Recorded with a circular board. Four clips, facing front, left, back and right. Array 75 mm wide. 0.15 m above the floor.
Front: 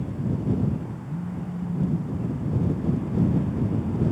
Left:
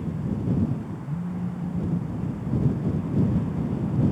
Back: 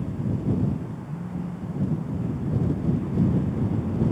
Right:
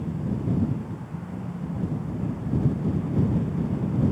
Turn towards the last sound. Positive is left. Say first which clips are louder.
# left 4 dB, even
turn(degrees=55)